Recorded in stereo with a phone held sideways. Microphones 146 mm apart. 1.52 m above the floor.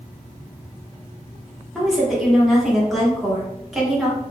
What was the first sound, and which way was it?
A woman speaking, centre (ahead or behind).